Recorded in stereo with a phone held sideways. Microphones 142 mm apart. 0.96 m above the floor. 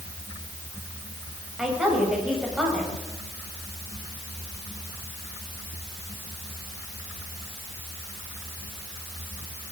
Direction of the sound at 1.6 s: 5° right (ahead or behind).